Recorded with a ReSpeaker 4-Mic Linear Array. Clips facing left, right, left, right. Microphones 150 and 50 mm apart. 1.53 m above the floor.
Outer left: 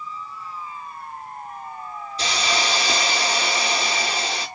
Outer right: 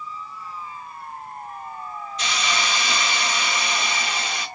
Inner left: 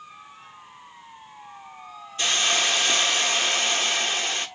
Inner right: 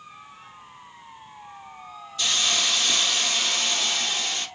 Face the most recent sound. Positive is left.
turn(degrees=35)  # may be behind; listen again after turning